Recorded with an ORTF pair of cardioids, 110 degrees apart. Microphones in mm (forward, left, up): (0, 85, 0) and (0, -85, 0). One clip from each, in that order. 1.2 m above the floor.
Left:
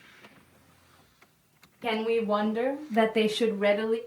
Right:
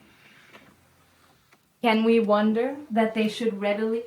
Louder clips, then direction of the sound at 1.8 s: Right 6 dB; 50° right.